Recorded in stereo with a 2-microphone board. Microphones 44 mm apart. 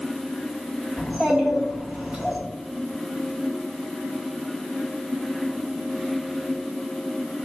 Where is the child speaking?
25° right (ahead or behind), 2.0 m.